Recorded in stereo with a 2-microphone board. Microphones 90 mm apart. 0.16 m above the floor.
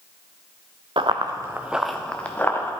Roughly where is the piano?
No piano in this recording.